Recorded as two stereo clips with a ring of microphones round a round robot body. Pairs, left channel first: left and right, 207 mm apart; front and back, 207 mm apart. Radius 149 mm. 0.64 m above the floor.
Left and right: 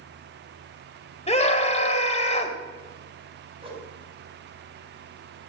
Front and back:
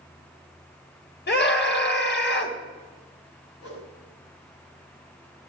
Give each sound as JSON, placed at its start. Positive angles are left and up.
{"t": 1.3, "sound": "a scream", "azimuth_deg": 30, "distance_m": 3.5}
{"t": 3.6, "sound": "a whoosh", "azimuth_deg": -25, "distance_m": 5.5}